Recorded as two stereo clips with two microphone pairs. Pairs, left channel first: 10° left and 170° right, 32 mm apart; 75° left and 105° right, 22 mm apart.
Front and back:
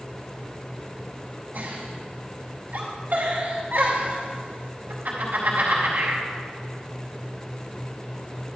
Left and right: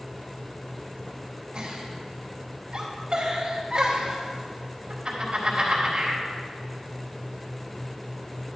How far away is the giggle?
About 3 m.